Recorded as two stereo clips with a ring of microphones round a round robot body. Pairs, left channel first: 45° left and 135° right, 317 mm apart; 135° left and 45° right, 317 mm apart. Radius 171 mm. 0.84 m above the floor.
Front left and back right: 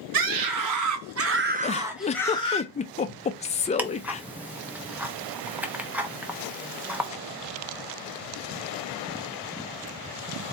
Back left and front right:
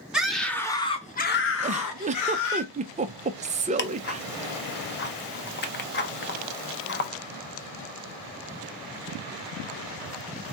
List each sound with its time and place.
0.1 s a scream: 135° right, 1.6 m; by 2.6 s 115° left, 1.3 m
1.6 s a giggle: straight ahead, 0.6 m
3.8 s ticking: 145° left, 0.8 m